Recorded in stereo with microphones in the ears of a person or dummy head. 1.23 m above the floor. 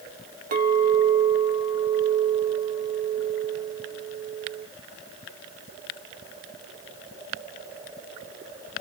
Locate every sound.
0.5 s a clink: 45° right (ahead or behind), 0.8 m